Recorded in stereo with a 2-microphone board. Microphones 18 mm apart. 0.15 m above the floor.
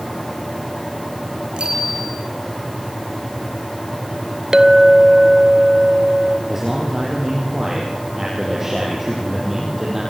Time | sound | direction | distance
1.6 | a bicycle bell | 65° right (ahead or behind) | 7 m
4.5 | a clink | 35° right (ahead or behind) | 1.1 m
6.5 | a man speaking | 20° right (ahead or behind) | 5.5 m